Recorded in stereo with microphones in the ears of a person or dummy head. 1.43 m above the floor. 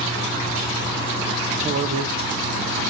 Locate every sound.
1.6 s a man speaking: 35° right (ahead or behind), 1.2 m